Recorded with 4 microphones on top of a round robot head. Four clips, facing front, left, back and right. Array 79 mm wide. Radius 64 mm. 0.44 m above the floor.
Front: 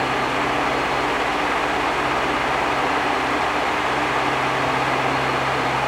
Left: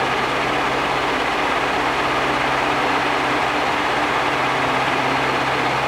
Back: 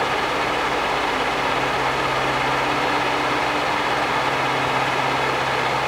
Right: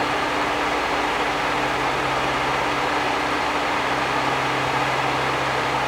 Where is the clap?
I don't hear a clap.